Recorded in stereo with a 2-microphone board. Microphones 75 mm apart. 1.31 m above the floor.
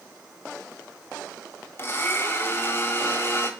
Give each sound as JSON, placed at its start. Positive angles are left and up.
{"t": 1.8, "sound": "a blender", "side_deg": 35, "distance_m": 1.6}